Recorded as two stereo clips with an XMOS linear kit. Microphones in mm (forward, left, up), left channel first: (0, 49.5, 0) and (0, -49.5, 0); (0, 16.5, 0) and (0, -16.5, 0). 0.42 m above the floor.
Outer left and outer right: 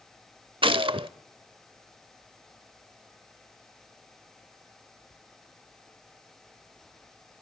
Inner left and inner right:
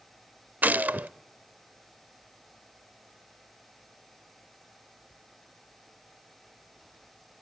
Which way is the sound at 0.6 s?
60° right (ahead or behind).